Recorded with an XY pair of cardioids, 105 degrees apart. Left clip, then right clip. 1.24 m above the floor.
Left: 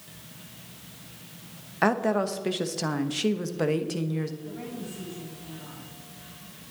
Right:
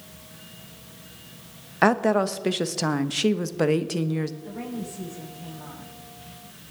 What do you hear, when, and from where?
1.8 s a woman speaking: 30° right, 1.0 m
4.4 s a woman speaking: 65° right, 6.5 m